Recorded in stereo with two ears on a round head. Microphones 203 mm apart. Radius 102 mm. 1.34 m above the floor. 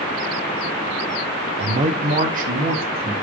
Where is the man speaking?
25° right (ahead or behind), 0.6 m; by 3.1 s 40° right (ahead or behind), 1.6 m.